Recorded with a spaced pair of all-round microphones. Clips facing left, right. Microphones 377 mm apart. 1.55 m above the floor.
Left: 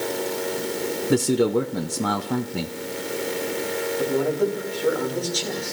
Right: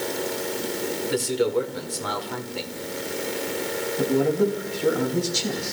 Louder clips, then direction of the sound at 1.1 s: Left 4 dB; 60° left (ahead or behind).